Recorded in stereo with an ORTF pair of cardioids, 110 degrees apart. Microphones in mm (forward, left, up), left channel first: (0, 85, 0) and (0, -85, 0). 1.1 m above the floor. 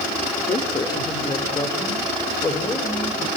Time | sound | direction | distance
0.4 | a man speaking | 25° left | 3.5 m